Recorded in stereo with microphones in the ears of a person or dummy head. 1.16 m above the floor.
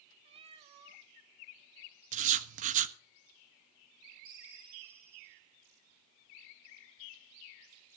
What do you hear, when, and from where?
0.2 s a cat meowing: 25° right (ahead or behind), 0.8 m
2.1 s writing: 40° right (ahead or behind), 1.2 m
4.2 s a ringtone: 30° right (ahead or behind), 8 m